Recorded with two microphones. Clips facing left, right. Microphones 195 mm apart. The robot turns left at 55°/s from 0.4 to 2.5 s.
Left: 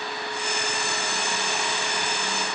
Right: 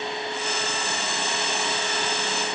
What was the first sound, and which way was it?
Only background noise.